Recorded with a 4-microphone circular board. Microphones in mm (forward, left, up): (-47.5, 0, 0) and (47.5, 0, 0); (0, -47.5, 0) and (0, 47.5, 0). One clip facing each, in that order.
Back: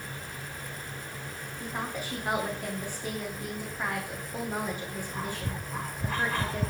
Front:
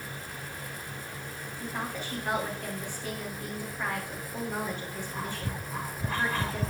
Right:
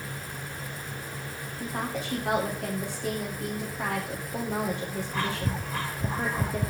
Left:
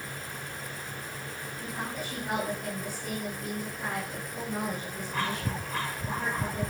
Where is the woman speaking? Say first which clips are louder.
Back 1 dB, right 5 dB; 100° right, 9.5 m.